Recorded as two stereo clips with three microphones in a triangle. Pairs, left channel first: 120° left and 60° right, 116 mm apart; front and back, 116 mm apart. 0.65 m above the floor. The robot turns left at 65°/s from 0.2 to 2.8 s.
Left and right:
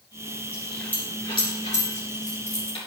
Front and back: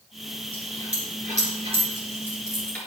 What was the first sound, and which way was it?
A dropped coin, 140° right.